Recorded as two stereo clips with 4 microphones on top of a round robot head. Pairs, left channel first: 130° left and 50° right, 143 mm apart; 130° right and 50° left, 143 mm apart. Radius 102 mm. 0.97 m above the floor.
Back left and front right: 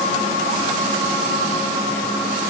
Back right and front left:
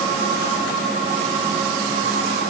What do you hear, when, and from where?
Only background noise.